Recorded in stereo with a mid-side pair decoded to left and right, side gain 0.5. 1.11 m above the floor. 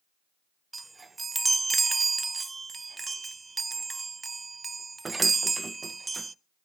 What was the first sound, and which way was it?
A chime, 20° right.